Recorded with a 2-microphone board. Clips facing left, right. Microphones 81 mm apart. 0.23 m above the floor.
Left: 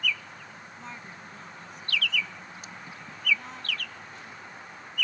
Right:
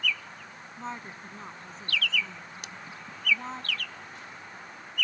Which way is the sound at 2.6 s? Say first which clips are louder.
Even; 75° right (ahead or behind).